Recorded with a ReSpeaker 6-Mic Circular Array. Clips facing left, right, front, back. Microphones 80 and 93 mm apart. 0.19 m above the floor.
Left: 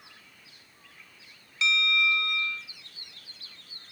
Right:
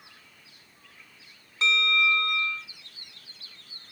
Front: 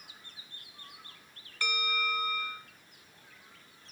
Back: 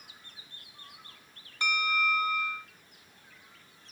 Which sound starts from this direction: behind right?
A bell, at 1.6 s.